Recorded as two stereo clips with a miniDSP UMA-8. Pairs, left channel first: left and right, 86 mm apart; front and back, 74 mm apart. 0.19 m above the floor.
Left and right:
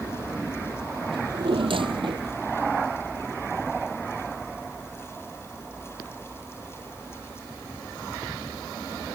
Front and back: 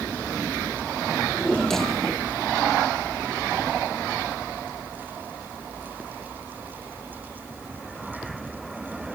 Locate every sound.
1.1 s a drawer: 85° right